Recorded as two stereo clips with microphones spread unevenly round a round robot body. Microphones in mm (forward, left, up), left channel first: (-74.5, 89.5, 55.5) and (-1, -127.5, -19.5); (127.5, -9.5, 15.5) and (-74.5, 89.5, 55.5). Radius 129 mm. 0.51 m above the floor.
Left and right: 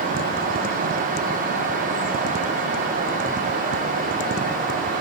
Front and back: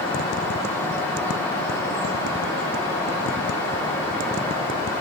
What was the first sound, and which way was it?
Only background noise.